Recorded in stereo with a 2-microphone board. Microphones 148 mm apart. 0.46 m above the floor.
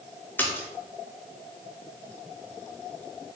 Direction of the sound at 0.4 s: 15° left (ahead or behind).